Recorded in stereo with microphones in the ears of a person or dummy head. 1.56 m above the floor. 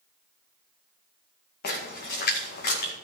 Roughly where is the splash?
Left.